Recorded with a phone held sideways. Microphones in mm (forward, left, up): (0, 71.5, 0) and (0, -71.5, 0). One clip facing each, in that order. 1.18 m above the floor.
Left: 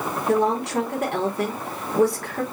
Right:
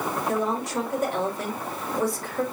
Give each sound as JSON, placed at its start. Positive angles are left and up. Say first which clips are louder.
{"t": 0.3, "sound": "a woman speaking", "louder": "left 8 dB", "side_deg": 65, "distance_m": 2.5}